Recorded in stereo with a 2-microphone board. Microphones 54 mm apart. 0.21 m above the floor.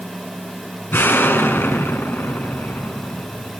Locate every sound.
0.9 s an explosion: 45° left (ahead or behind), 1.8 m